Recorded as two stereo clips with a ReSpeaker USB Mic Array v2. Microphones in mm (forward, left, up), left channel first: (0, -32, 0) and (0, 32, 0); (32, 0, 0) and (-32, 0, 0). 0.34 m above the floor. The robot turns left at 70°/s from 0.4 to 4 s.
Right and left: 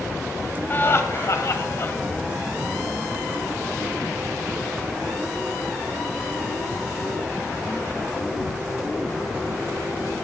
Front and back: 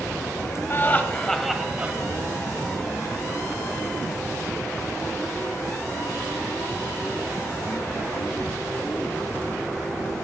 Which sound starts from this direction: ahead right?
Laughter, at 0.7 s.